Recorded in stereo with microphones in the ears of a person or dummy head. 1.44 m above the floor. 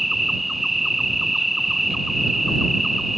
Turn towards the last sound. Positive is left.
turn(degrees=5)  # may be behind; listen again after turning